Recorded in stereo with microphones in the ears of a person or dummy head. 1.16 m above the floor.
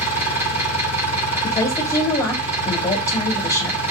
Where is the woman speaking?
20° left (ahead or behind), 2.5 m.